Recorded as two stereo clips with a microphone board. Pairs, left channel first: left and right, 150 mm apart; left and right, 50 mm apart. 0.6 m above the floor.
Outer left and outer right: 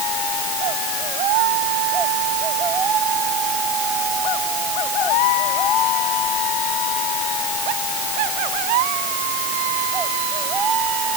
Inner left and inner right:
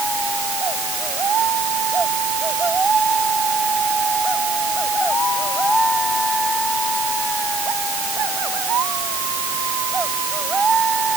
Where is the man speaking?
I don't hear a man speaking.